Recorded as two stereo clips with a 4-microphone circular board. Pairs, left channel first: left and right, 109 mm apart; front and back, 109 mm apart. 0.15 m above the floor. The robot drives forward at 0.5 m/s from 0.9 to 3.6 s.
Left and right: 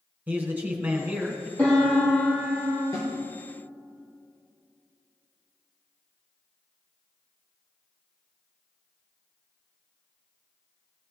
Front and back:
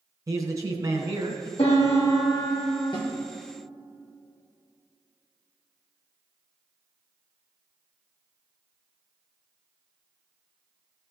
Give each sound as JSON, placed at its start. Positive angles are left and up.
{"t": 0.3, "sound": "a man speaking", "azimuth_deg": -155, "distance_m": 1.2}
{"t": 1.6, "sound": "a piano", "azimuth_deg": 15, "distance_m": 3.5}
{"t": 2.9, "sound": "a snare drum", "azimuth_deg": 35, "distance_m": 3.0}